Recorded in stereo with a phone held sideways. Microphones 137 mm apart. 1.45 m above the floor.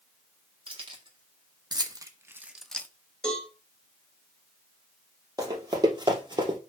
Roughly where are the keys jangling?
Right.